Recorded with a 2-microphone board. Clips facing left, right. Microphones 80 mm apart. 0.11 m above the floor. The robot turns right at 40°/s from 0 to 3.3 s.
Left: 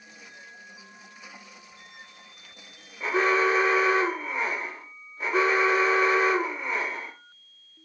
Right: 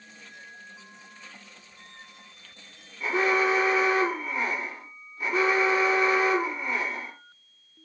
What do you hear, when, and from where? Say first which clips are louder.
3.0 s an alarm: left 1 dB; 30° left (ahead or behind), 1.9 m; by 7.1 s 25° left (ahead or behind), 1.9 m